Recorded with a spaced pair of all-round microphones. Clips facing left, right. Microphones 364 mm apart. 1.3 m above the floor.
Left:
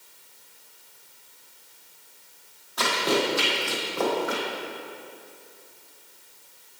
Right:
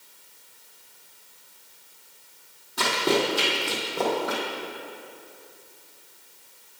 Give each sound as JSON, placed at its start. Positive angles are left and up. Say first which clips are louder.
{"t": 2.8, "sound": "running footsteps", "louder": "right 1 dB", "side_deg": -35, "distance_m": 1.8}